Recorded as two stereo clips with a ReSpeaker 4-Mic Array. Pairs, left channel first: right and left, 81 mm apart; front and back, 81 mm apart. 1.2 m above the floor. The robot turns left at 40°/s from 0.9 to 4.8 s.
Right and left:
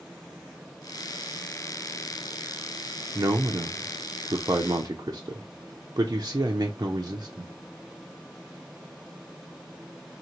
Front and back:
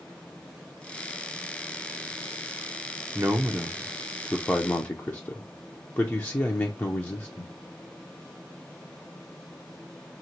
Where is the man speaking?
125° left, 0.5 m; by 7.5 s 60° left, 0.5 m.